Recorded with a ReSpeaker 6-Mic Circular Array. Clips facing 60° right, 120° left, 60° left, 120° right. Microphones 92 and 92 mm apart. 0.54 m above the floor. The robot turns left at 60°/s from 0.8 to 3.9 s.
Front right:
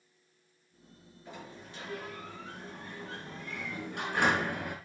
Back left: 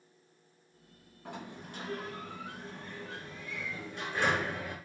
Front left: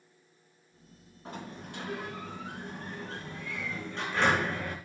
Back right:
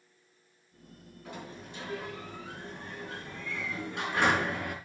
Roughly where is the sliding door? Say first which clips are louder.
Back left 3 dB, front left 2 dB; behind left.